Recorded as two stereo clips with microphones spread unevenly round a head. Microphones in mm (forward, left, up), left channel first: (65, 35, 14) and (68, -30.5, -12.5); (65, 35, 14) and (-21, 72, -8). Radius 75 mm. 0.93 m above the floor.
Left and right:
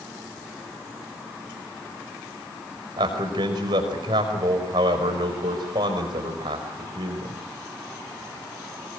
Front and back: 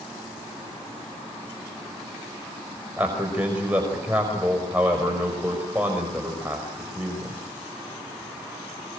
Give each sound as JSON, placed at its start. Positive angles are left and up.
{"t": 3.0, "sound": "a man speaking", "azimuth_deg": -125, "distance_m": 5.0}